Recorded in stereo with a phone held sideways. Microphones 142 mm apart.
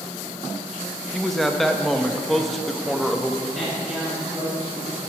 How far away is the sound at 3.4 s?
About 2.5 m.